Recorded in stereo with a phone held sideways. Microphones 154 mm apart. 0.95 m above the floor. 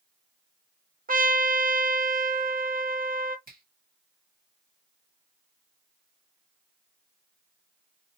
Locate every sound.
1.1 s a trumpet: 65° right (ahead or behind), 0.7 m
3.5 s a finger snap: 70° right (ahead or behind), 1.5 m